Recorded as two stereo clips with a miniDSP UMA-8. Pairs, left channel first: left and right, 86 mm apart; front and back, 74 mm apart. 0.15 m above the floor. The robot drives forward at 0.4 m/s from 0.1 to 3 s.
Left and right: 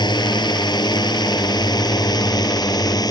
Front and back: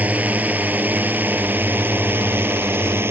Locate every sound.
0.0 s a drone: 115° left; by 3.1 s 125° left